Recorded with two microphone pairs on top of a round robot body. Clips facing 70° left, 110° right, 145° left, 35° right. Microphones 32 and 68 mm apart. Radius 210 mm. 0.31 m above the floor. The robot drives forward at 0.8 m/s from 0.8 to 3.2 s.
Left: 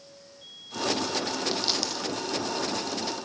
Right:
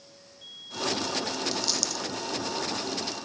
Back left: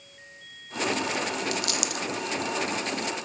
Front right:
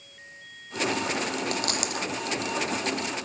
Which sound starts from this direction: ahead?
A dropped coin, at 1.5 s.